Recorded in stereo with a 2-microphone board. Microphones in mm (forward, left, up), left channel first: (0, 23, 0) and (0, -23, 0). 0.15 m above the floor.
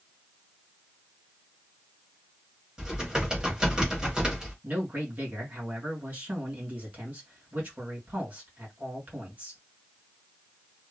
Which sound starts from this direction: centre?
Typing on a keyboard, at 2.8 s.